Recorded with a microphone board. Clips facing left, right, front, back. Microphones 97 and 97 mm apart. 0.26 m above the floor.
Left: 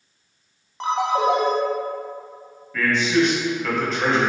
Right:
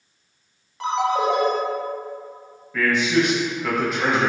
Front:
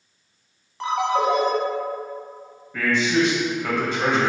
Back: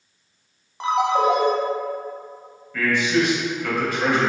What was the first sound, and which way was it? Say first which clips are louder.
A ringtone: left 1 dB, back 2 dB; 120° left.